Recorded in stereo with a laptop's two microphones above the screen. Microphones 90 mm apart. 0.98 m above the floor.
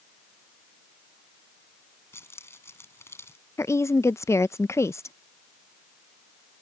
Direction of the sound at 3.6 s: 30° left (ahead or behind).